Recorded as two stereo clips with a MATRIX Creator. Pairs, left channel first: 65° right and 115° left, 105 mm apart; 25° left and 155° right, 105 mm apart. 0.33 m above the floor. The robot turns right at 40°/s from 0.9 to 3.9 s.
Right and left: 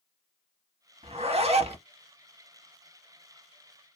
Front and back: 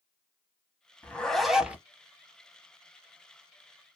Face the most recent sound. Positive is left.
turn(degrees=-150)